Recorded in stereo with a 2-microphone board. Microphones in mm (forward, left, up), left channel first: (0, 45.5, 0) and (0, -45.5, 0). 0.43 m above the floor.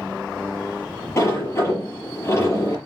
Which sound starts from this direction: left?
A sliding door, at 1.2 s.